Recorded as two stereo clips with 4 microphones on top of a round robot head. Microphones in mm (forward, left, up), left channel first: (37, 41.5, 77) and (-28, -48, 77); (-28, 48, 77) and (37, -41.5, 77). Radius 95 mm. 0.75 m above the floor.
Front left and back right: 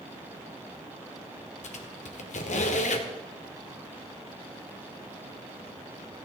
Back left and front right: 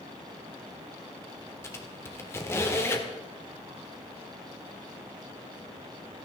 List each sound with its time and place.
1.6 s a squeak: 60° left, 1.9 m